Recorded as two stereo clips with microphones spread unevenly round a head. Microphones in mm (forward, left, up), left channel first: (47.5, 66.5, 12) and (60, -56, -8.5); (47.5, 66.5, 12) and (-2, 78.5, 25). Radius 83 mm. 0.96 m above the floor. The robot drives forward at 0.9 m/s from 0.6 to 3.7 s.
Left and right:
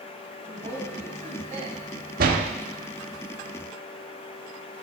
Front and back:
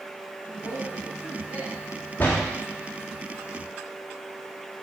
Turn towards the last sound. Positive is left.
turn(degrees=-145)